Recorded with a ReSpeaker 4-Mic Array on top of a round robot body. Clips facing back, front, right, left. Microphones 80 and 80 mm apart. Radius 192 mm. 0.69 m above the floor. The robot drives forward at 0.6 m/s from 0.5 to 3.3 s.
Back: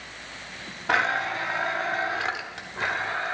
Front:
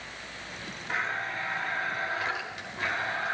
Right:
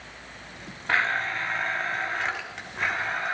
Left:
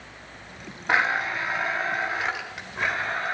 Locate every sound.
0.9 s a blender: 160° left, 0.6 m; by 3.4 s 175° left, 2.0 m